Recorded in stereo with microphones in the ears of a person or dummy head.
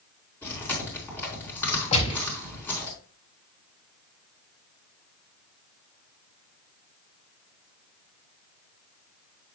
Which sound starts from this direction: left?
A gunshot, at 1.9 s.